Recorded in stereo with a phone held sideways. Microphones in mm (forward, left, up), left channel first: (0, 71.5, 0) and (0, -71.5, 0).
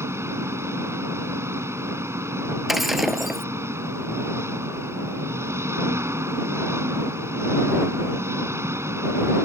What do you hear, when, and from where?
0.0 s an engine running: 20° right (ahead or behind)
2.7 s breaking glass: centre (ahead or behind)